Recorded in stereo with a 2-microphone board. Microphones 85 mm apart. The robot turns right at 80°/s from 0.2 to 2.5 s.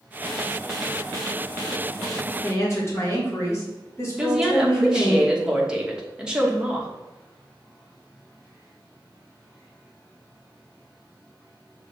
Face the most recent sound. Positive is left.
turn(degrees=-10)  # may be behind; listen again after turning